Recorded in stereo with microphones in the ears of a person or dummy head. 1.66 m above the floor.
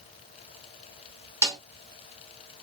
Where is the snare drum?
15° right (ahead or behind), 0.7 m.